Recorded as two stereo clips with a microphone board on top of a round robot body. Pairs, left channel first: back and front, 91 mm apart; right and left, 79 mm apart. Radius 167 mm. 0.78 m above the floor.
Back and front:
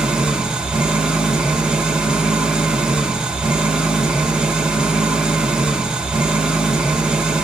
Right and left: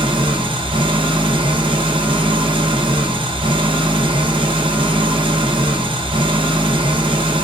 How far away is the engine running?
About 0.7 m.